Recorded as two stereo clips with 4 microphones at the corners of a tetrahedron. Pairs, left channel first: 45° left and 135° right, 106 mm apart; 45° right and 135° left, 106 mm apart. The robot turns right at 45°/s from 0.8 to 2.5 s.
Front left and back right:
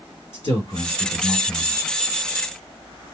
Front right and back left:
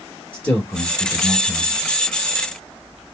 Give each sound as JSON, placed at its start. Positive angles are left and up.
{"t": 0.3, "sound": "a man speaking", "azimuth_deg": 35, "distance_m": 3.5}